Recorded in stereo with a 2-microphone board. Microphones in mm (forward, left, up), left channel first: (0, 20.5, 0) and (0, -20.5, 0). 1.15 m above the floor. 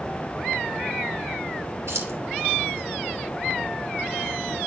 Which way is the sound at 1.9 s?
85° right.